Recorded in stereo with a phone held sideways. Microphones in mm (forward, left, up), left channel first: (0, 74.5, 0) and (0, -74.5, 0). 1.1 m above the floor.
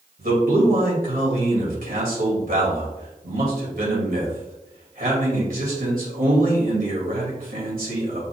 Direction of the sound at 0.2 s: 70° right (ahead or behind).